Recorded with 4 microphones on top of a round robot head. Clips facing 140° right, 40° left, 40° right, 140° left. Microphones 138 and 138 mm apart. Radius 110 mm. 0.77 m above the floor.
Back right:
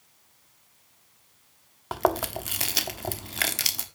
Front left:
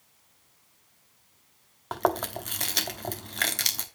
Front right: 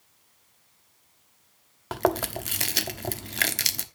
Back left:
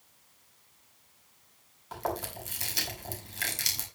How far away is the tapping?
I don't hear tapping.